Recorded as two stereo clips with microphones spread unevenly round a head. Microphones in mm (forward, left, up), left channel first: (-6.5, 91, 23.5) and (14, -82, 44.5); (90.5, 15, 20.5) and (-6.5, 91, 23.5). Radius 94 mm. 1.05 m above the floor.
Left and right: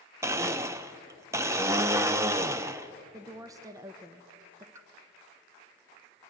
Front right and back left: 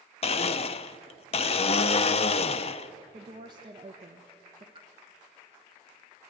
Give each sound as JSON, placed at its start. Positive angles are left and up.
{"t": 0.2, "sound": "a blender", "azimuth_deg": -20, "distance_m": 0.5}
{"t": 3.1, "sound": "a woman speaking", "azimuth_deg": -155, "distance_m": 0.9}
{"t": 4.8, "sound": "a pop", "azimuth_deg": -155, "distance_m": 0.8}